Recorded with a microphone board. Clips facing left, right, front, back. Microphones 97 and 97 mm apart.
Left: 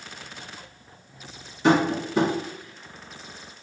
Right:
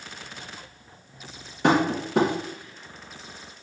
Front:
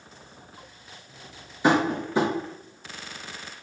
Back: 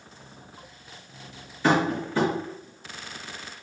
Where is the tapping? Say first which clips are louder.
Left 1 dB, front 1 dB; 70° right, 0.9 m.